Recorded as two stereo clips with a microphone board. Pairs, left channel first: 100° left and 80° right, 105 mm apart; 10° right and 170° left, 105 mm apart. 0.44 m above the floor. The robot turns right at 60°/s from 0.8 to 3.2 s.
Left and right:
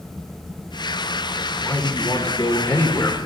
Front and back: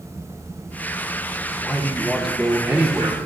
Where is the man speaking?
45° left, 0.8 m; by 3.2 s 140° left, 0.8 m.